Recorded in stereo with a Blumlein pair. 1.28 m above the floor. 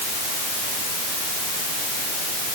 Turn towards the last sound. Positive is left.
No sound to turn to.